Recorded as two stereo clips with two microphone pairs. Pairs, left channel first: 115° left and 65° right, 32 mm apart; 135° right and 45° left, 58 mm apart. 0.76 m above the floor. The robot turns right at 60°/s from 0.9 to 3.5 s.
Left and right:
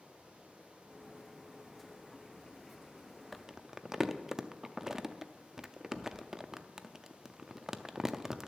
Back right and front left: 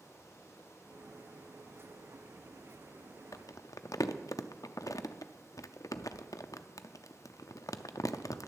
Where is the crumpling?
155° right, 0.5 m; by 8.5 s 145° right, 0.5 m.